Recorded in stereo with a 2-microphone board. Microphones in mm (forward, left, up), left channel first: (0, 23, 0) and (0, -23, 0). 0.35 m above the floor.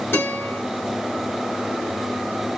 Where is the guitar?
55° left (ahead or behind), 1.4 m.